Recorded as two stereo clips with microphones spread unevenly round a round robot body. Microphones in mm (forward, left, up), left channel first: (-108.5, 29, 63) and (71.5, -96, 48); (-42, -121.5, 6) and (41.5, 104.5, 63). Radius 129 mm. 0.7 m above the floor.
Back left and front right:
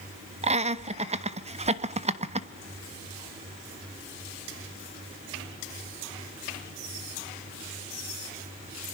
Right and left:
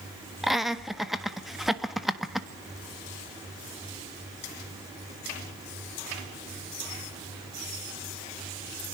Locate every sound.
0.4 s laughter: 40° right, 1.2 m